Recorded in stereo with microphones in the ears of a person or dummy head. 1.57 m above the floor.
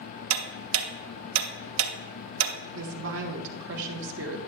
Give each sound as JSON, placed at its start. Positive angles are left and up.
{"t": 0.3, "sound": "ticking", "side_deg": -75, "distance_m": 0.8}
{"t": 2.7, "sound": "a woman speaking", "side_deg": -70, "distance_m": 1.3}